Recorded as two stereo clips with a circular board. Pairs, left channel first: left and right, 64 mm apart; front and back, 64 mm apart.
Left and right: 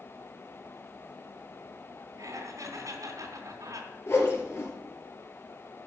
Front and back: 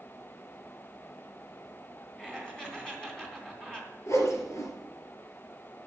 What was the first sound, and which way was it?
Laughter, 75° right.